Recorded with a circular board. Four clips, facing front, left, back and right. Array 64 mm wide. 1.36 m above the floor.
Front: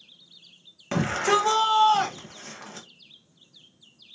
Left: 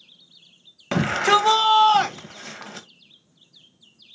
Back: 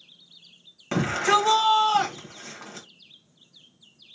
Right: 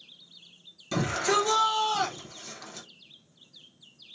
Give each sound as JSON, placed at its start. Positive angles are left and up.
{"t": 0.9, "sound": "a shout", "azimuth_deg": 95, "distance_m": 1.0}